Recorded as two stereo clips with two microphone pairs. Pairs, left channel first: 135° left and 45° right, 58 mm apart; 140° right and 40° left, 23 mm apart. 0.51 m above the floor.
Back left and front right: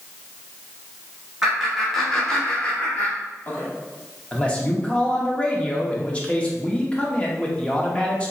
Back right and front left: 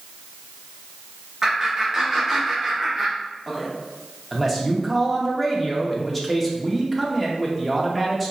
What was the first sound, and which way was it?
Laughter, 25° left.